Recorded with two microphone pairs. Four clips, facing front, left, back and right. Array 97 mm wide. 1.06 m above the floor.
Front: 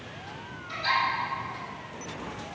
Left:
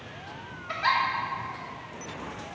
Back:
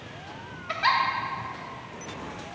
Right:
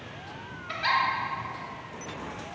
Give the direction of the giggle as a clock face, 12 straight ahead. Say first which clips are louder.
Left 1 dB, back 4 dB; 7 o'clock.